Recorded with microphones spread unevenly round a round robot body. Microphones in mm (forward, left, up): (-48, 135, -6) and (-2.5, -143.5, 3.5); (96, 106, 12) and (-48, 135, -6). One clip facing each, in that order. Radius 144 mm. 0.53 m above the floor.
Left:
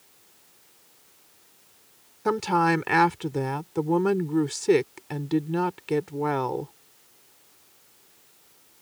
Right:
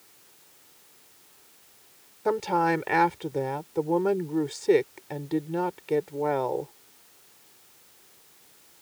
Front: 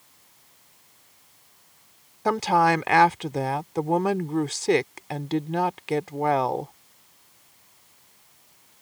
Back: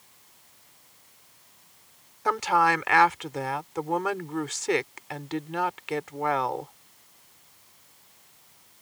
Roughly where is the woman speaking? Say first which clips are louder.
Left 1 dB, front 3 dB; ahead left.